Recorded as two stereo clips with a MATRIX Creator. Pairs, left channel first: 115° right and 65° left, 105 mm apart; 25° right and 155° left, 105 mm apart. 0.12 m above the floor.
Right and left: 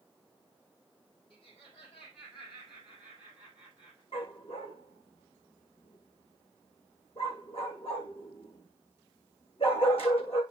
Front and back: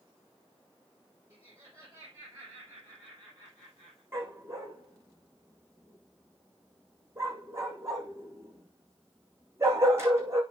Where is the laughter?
150° right, 5.5 m; by 4.0 s 155° right, 7 m.